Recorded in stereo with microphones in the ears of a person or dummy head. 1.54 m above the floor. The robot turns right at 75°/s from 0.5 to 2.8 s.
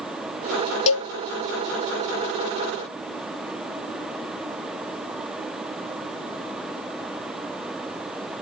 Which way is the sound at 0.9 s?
35° left (ahead or behind).